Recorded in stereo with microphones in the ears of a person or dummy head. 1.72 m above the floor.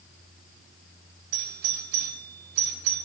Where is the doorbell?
65° right (ahead or behind), 6 m.